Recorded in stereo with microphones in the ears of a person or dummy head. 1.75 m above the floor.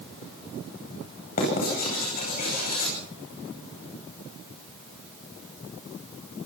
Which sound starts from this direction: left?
Writing, at 1.4 s.